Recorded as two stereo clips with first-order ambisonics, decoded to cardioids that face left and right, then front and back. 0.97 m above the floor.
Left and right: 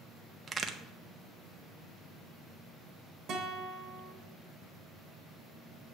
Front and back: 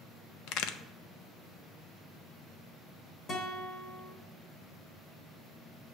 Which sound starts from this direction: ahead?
A crack, at 0.5 s.